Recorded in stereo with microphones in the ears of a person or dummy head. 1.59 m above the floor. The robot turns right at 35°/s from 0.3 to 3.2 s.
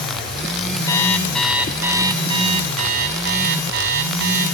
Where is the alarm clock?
165° left, 4.5 m; by 4.5 s 110° right, 4.5 m.